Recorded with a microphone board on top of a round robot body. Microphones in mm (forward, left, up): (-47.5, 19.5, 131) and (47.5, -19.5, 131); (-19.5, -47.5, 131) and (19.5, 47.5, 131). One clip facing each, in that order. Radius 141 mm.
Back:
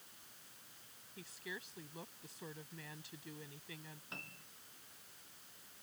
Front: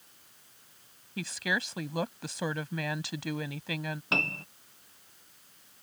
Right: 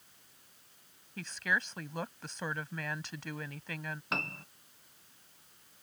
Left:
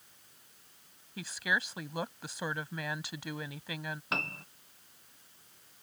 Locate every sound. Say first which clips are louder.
1.2 s a woman speaking: front 17 dB, left 1 dB; 15° right
4.1 s a piano: front 23 dB, even; 20° right